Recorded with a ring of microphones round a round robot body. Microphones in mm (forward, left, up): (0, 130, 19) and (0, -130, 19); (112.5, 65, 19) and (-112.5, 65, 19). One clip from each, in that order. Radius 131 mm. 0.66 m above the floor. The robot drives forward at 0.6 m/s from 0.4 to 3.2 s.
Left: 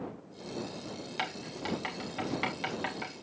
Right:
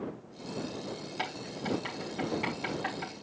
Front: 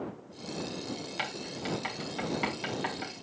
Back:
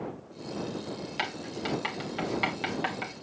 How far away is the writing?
About 3 m.